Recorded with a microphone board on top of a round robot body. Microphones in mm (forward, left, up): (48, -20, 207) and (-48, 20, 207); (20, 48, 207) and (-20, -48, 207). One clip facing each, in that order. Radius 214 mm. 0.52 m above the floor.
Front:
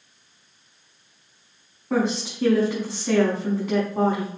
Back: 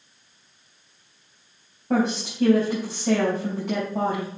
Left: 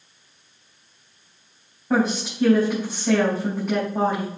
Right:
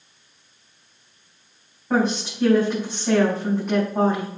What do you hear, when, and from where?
1.9 s a woman speaking: 155° left, 4.5 m